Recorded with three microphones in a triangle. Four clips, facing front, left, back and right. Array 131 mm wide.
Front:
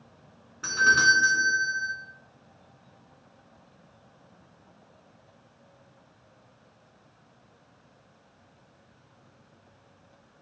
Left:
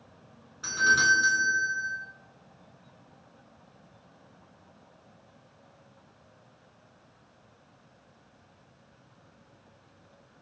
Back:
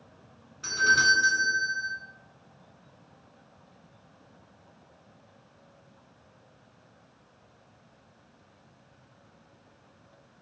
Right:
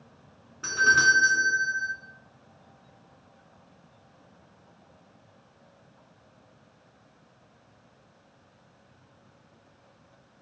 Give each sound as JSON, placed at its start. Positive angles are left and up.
{"t": 0.6, "sound": "a doorbell", "azimuth_deg": -25, "distance_m": 2.0}